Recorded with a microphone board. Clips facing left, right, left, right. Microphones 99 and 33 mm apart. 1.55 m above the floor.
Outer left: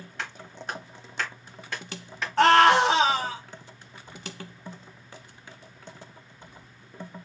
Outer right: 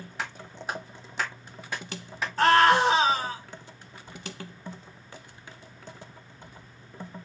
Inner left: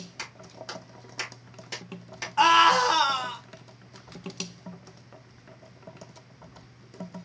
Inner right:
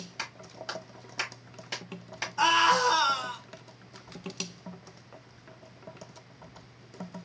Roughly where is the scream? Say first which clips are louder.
Outer left 2 dB, inner left 4 dB; left.